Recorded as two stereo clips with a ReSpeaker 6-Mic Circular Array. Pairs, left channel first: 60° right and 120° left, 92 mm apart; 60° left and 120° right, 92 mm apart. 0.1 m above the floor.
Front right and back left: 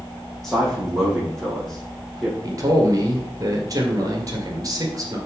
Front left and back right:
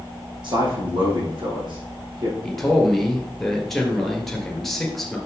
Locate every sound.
0.4 s a man speaking: 145° right, 4 m
2.4 s a man speaking: 145° left, 2.5 m